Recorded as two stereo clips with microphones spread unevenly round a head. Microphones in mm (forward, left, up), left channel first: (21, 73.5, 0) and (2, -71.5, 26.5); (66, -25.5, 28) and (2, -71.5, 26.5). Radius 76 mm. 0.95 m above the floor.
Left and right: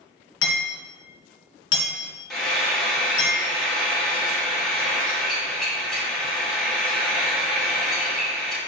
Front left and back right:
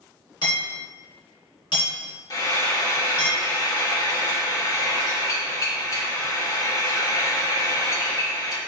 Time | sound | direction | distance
0.4 | hammering | 90° left | 2.5 m
2.3 | frying | straight ahead | 1.8 m